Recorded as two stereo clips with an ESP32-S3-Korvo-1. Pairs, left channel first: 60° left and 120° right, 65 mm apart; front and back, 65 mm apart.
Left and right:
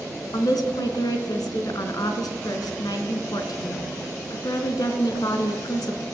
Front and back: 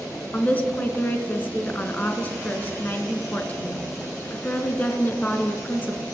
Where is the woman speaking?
65° left, 3.5 m.